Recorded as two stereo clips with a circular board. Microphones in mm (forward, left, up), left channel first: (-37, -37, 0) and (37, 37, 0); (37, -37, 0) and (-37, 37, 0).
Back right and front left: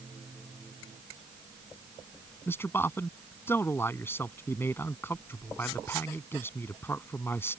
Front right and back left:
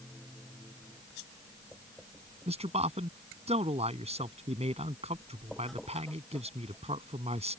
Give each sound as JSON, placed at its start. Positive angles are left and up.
{"t": 2.5, "sound": "a man speaking", "azimuth_deg": 155}